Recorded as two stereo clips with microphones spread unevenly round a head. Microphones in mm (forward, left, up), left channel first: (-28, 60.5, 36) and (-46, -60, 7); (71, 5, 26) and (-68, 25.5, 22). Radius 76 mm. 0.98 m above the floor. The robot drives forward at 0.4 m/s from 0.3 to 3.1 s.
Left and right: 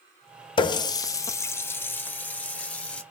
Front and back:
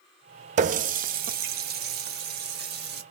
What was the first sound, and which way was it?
A running tap, 130° left.